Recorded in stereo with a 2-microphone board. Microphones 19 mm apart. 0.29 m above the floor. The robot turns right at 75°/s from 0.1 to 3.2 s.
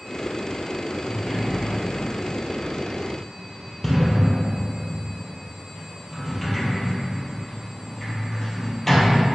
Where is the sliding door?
Centre (ahead or behind), 2 m; by 9.2 s 20° left (ahead or behind), 2 m.